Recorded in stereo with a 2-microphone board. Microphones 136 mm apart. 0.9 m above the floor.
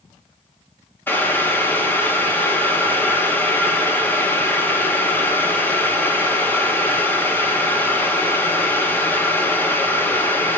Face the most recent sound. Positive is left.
turn(degrees=15)  # may be behind; listen again after turning